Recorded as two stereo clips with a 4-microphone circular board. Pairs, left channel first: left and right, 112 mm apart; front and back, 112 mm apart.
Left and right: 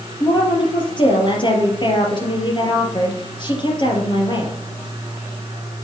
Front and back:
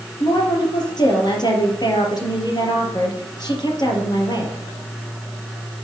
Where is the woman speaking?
50° left, 3 m.